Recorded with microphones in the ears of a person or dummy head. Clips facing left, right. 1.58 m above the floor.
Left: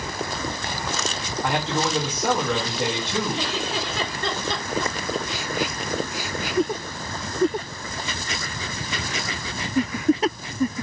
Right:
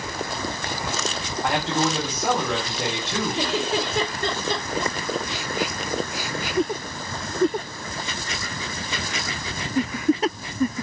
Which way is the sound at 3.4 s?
75° right (ahead or behind).